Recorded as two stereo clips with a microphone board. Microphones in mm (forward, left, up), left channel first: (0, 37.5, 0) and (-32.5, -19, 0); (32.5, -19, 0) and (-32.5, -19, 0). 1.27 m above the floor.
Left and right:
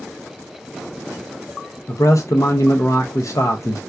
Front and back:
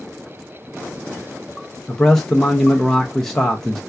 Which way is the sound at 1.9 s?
80° left.